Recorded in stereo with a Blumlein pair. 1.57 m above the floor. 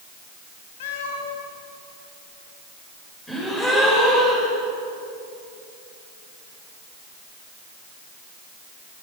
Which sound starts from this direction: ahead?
A gasp, at 3.3 s.